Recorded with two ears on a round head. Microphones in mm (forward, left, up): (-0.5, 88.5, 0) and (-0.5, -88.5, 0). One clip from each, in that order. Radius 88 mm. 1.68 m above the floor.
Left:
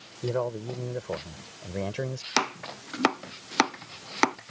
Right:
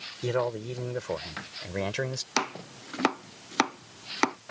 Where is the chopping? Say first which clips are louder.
Left 4 dB; 5° left (ahead or behind).